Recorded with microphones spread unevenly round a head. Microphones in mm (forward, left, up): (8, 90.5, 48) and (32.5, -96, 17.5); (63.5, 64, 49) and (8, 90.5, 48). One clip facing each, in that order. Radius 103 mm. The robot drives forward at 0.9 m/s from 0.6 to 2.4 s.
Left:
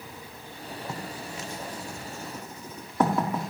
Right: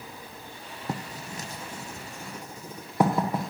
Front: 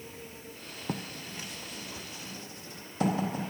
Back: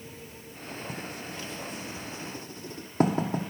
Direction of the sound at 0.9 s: 45° right.